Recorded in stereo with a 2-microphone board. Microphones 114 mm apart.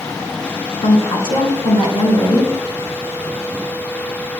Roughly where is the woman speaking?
Left.